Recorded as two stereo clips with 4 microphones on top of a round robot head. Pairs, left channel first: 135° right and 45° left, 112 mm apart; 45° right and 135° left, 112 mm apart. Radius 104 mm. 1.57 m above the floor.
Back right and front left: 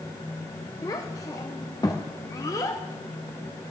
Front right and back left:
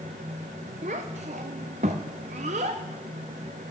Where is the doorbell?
I don't hear a doorbell.